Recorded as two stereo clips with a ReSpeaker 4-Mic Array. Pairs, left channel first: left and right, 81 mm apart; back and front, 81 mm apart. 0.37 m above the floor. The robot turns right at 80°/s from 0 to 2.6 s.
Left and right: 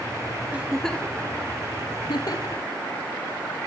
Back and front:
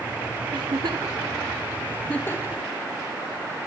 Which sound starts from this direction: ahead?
A giggle, at 0.5 s.